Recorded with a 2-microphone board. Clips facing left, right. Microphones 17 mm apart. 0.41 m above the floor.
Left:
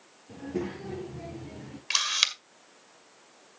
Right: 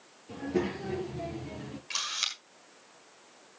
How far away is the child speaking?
About 5.5 m.